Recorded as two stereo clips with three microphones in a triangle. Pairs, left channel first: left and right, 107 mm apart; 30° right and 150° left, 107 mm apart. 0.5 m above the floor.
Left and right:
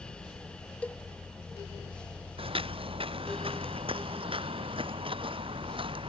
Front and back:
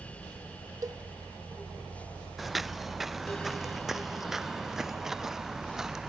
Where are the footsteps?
120° right; by 6.1 s 125° right.